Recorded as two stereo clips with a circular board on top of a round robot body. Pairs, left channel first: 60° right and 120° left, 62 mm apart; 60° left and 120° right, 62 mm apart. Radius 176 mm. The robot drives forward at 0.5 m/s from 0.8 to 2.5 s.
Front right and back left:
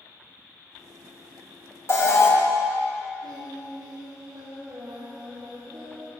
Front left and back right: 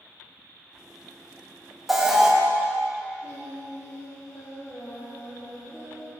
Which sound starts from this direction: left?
Singing, at 3.2 s.